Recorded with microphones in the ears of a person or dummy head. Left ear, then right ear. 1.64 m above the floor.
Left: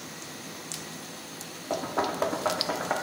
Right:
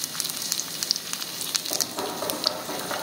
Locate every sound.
1.7 s knocking: 20° left (ahead or behind), 0.9 m